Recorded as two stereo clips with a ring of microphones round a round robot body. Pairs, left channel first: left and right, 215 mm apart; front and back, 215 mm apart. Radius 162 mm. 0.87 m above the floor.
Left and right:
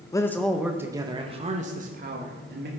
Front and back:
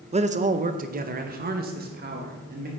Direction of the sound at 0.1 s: 150° left.